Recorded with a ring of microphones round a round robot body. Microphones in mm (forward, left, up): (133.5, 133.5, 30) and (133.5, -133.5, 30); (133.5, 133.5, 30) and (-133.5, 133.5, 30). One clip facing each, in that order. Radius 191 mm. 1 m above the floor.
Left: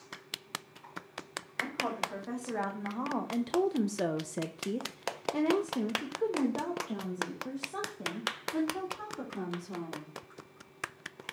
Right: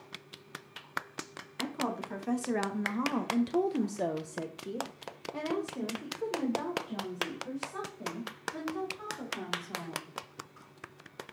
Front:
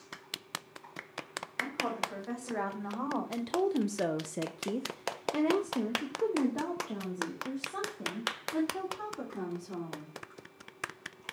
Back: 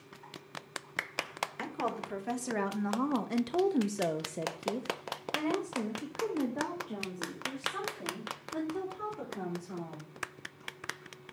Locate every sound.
1.6 s a woman speaking: 135° right, 1.3 m; by 10.1 s 45° left, 3.5 m